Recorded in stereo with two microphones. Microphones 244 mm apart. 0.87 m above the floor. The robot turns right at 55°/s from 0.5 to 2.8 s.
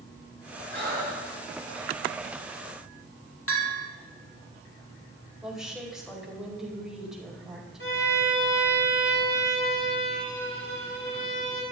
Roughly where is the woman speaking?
Centre.